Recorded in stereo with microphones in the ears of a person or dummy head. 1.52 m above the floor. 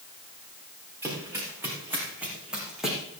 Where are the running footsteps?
15° right (ahead or behind), 5.5 m; by 3.0 s 5° right (ahead or behind), 3.5 m.